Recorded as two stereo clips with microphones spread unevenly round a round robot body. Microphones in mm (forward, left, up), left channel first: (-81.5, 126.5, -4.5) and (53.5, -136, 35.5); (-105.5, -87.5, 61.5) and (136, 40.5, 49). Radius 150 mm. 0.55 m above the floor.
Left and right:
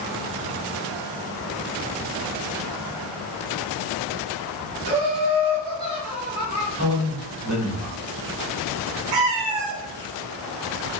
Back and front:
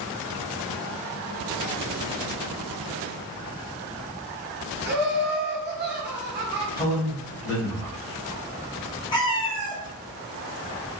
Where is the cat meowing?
75° right, 0.8 m.